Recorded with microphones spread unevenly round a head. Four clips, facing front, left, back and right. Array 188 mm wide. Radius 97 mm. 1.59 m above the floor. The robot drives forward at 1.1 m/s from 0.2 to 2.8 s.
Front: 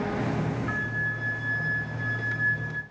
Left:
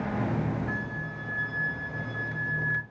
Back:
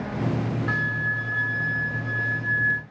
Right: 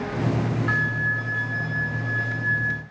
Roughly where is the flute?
Right.